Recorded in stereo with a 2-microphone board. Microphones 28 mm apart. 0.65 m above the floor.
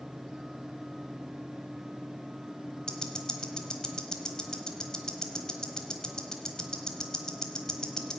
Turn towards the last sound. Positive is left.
turn(degrees=25)  # may be behind; listen again after turning